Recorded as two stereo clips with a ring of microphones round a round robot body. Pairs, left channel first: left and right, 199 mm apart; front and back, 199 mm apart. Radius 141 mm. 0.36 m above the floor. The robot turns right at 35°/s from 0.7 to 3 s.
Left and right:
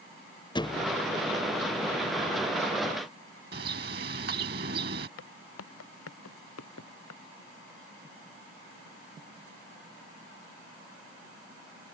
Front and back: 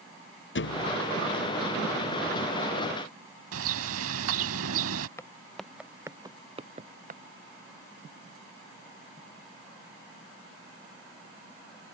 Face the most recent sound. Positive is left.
turn(degrees=135)